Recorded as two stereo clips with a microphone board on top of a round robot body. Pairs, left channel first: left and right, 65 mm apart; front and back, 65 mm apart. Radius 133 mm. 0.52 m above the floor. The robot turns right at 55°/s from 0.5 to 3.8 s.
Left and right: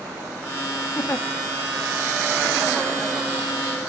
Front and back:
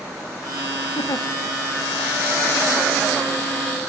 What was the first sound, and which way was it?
A giggle, 30° left.